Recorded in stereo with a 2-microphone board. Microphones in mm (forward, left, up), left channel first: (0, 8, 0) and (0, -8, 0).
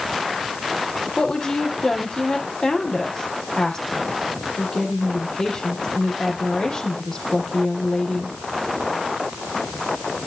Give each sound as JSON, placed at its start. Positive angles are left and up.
{"t": 1.2, "sound": "a woman speaking", "side_deg": 55, "distance_m": 4.5}